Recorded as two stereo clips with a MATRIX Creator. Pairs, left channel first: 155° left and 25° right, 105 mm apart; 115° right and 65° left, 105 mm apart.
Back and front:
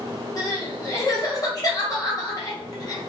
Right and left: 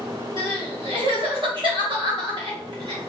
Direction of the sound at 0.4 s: 105° left.